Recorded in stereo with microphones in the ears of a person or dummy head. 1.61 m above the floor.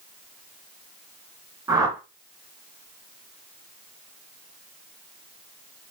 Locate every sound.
1.7 s a whoosh: 20° right (ahead or behind), 2.5 m